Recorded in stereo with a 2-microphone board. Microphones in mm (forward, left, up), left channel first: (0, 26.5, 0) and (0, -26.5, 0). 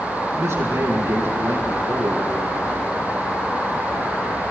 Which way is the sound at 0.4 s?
55° right (ahead or behind).